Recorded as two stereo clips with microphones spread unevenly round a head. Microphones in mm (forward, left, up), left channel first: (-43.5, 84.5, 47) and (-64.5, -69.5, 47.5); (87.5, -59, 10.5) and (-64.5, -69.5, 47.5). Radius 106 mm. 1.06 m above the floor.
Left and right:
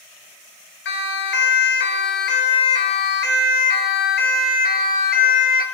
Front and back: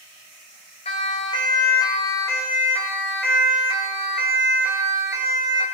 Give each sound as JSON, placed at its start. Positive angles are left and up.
{"t": 0.8, "sound": "a siren", "azimuth_deg": 65, "distance_m": 3.5}